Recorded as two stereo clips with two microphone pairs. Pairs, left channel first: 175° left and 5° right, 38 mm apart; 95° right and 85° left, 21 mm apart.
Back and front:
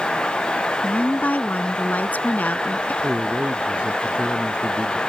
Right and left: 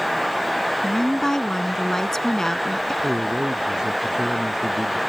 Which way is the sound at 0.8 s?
165° right.